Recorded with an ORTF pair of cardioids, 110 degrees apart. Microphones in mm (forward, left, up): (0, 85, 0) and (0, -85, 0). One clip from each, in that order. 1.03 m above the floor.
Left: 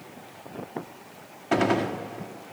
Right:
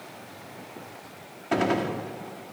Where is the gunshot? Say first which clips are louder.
Left 1 dB; 10° left, 1.5 m.